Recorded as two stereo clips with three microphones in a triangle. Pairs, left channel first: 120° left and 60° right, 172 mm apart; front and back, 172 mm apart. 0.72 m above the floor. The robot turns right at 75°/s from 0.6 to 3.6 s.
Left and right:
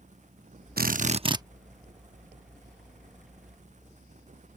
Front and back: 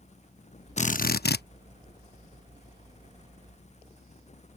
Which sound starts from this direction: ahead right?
A drill, at 0.8 s.